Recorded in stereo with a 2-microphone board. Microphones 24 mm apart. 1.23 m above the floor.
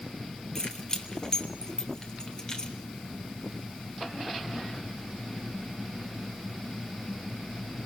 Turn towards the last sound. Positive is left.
turn(degrees=30)  # may be behind; listen again after turning